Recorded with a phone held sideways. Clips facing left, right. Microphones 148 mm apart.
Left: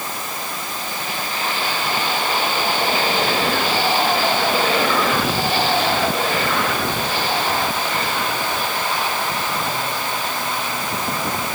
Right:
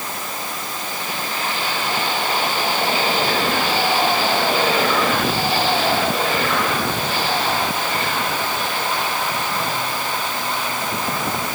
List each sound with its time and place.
Only background noise.